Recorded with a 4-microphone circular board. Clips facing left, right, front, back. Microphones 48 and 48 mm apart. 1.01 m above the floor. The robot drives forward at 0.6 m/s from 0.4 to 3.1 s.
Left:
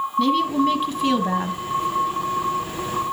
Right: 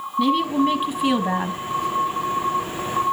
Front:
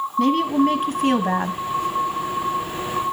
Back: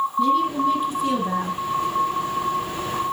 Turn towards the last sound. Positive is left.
turn(degrees=-100)